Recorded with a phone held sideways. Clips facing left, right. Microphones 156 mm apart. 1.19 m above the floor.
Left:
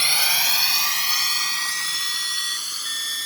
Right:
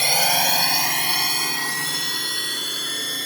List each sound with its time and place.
0.0 s a drone: 45° right (ahead or behind); by 3.3 s 60° right (ahead or behind)